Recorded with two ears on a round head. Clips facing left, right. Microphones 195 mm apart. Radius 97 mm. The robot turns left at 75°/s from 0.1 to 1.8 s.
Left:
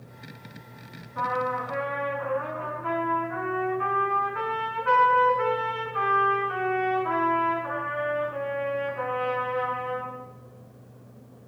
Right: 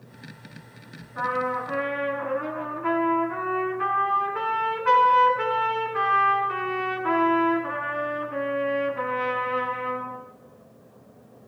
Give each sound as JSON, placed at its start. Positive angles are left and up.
{"t": 1.1, "sound": "a trumpet", "azimuth_deg": -10, "distance_m": 7.0}